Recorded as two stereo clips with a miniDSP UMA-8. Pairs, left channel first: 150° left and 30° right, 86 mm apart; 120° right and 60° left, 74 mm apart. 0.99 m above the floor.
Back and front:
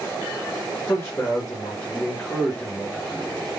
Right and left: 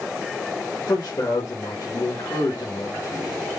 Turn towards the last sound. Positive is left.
turn(degrees=-145)